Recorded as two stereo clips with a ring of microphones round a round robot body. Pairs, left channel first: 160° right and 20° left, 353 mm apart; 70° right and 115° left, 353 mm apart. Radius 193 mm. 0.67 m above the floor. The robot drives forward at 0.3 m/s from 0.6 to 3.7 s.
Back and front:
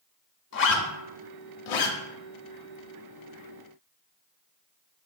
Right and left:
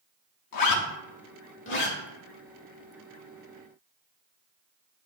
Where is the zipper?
100° right, 0.6 m; by 2.0 s 130° right, 0.8 m.